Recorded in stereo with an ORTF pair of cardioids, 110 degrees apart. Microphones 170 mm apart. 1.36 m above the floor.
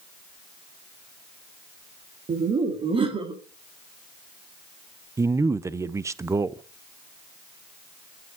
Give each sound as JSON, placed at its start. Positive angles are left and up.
{"t": 2.3, "sound": "laughter", "azimuth_deg": -40, "distance_m": 2.0}
{"t": 5.2, "sound": "a man speaking", "azimuth_deg": -15, "distance_m": 0.7}